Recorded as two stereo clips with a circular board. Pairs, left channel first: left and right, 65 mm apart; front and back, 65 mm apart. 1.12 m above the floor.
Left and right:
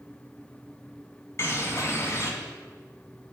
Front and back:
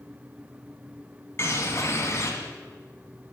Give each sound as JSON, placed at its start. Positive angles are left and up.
{"t": 1.4, "sound": "a bird", "azimuth_deg": 45, "distance_m": 2.5}